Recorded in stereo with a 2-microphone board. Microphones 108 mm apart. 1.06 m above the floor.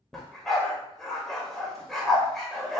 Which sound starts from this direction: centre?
A dog barking, at 0.1 s.